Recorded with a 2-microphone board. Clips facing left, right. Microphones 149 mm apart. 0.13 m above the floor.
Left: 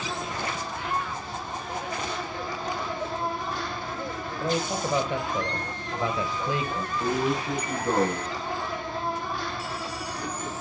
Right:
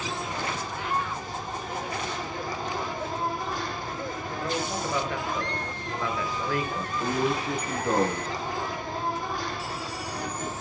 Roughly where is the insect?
Right.